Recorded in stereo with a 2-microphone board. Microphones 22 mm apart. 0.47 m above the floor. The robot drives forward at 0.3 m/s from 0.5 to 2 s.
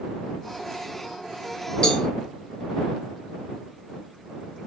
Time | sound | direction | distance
1.8 | a cowbell | 45° left (ahead or behind) | 1.1 m